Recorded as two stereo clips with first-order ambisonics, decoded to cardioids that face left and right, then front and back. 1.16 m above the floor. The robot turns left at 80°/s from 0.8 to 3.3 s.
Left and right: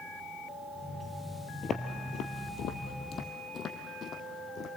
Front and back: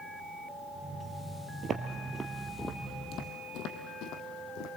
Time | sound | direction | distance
1.6 | footsteps | 145° left | 1.3 m